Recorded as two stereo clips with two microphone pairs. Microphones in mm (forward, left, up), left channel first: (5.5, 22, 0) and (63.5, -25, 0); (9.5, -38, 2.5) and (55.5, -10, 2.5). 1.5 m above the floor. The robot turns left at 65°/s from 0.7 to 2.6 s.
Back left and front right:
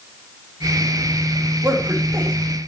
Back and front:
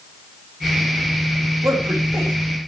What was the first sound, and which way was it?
A man speaking, 30° left.